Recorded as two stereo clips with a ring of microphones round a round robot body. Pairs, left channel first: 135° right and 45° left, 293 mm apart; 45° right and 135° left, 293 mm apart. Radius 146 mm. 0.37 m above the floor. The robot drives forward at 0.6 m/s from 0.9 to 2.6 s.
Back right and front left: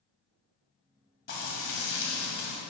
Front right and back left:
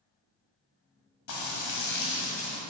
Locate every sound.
1.3 s frying: 85° right, 1.5 m; by 2.6 s 115° right, 1.6 m